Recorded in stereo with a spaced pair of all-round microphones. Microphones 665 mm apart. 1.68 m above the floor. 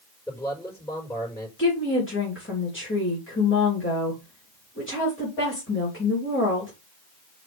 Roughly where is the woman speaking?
Centre.